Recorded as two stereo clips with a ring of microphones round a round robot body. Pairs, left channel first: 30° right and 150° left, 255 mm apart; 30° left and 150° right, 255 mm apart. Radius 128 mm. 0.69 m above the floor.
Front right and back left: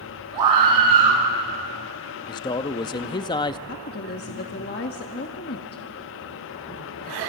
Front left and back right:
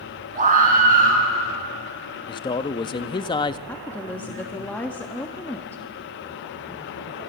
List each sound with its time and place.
0.3 s a scream: 150° left, 8 m
2.3 s a man speaking: 5° left, 0.6 m
3.7 s a woman speaking: 50° right, 1.3 m